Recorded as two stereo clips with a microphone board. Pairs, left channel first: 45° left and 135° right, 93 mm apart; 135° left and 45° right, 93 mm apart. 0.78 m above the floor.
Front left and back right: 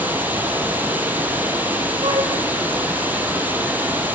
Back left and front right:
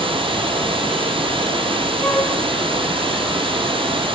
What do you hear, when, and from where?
0.0 s running water: 65° right, 6.5 m
2.0 s a flute: 150° right, 3.5 m